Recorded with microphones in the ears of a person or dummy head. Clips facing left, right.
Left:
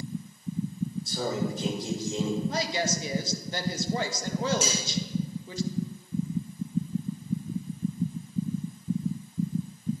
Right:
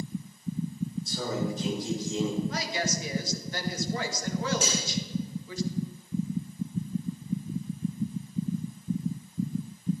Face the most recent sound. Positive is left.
turn(degrees=80)